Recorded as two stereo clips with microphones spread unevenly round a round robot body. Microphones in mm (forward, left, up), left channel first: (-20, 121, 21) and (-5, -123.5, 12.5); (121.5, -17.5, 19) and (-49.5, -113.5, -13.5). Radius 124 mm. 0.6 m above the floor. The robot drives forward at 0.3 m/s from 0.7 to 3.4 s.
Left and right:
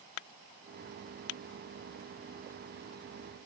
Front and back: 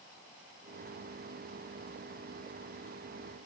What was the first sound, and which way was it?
Only background noise.